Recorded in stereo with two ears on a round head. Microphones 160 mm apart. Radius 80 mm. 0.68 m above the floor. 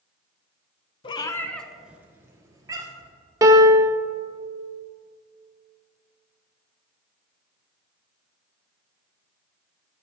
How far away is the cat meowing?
About 0.6 m.